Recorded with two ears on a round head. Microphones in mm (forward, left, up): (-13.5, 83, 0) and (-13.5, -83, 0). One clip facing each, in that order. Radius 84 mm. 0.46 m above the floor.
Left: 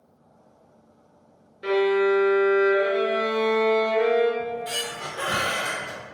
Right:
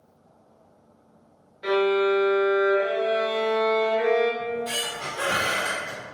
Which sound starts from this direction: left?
A violin, at 1.6 s.